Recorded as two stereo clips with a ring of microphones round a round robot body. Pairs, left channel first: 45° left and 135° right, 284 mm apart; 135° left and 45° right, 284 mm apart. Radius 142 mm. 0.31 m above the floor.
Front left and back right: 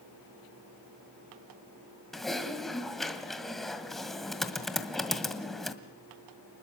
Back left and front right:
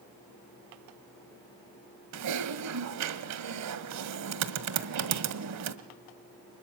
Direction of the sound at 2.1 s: 45° right.